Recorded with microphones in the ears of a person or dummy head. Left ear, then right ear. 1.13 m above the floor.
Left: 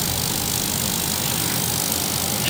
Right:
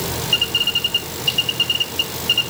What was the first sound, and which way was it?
Only background noise.